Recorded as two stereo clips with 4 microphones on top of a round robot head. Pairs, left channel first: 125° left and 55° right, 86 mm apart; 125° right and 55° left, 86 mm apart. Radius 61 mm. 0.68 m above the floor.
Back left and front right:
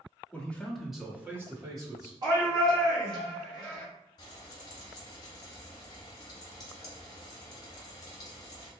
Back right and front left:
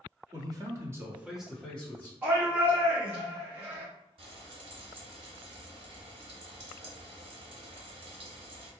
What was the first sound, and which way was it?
A man speaking, 60° left.